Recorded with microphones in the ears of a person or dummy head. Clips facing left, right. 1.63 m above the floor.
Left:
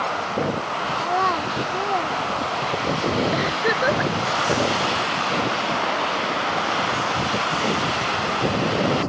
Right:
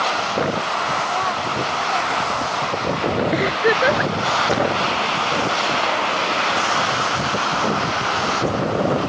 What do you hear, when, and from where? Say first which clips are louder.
1.0 s a child speaking: left 1 dB; 45° left (ahead or behind); by 3.1 s 60° left (ahead or behind)
3.3 s a giggle: right 4 dB; 35° right (ahead or behind)